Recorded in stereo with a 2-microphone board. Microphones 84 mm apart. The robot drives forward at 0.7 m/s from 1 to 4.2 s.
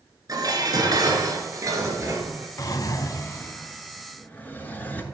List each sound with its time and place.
0.3 s dishes clattering: 50° right (ahead or behind), 1.9 m; by 2.5 s 30° right (ahead or behind), 2.5 m
2.6 s a drawer: 45° left (ahead or behind), 0.5 m; by 5.0 s 20° left (ahead or behind), 1.1 m